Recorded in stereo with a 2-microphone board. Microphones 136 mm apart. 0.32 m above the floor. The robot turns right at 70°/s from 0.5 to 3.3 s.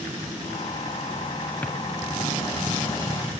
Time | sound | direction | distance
1.6 | a drawer | 15° left (ahead or behind) | 2.5 m